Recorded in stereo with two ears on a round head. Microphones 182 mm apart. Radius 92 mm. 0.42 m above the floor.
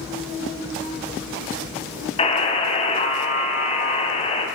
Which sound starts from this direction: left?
A buzzer, at 2.2 s.